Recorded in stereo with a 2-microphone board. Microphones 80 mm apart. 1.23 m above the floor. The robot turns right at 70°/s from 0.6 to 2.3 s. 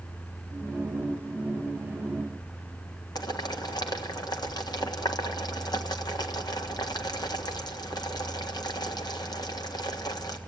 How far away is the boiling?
About 1.5 m.